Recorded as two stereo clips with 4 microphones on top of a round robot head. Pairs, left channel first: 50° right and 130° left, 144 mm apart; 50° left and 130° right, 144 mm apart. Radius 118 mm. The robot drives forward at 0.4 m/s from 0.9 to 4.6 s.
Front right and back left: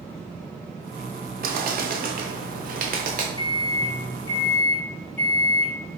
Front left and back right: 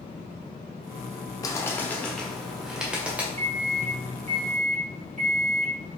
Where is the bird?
120° left, 0.7 m; by 3.3 s 150° left, 1.2 m.